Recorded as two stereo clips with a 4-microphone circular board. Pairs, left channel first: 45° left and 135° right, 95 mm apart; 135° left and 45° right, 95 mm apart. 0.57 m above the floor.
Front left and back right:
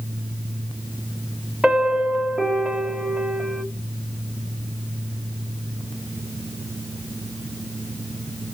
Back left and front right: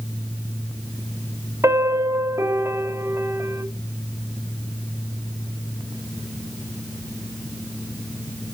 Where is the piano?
60° right, 1.2 m.